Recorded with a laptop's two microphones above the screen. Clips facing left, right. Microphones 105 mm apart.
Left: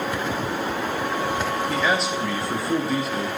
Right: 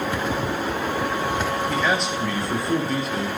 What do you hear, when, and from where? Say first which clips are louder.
1.7 s a man speaking: even; centre (ahead or behind), 1.1 m